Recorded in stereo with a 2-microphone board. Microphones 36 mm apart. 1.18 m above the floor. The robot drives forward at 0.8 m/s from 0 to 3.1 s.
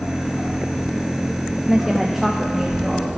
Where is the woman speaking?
15° right (ahead or behind), 0.5 m; by 3.2 s 5° right (ahead or behind), 1.7 m.